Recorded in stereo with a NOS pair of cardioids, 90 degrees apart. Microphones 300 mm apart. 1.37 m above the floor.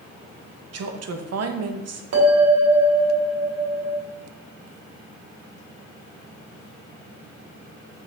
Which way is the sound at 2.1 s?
60° right.